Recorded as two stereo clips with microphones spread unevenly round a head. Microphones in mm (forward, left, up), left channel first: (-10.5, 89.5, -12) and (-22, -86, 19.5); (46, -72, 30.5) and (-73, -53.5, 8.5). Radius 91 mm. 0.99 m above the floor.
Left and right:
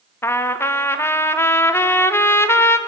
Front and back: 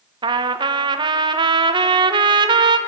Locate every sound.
0.2 s a trumpet: 150° left, 1.2 m